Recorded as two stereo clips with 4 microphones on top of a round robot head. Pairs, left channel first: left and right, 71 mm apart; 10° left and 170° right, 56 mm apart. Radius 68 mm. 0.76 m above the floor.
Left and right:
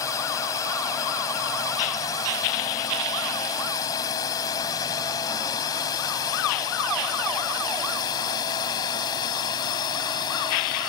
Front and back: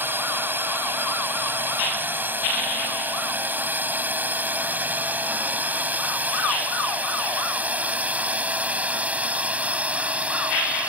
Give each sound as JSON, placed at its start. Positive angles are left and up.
{"t": 0.0, "sound": "a drone", "azimuth_deg": 140}